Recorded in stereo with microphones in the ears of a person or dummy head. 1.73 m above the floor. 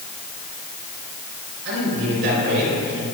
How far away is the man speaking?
About 5 m.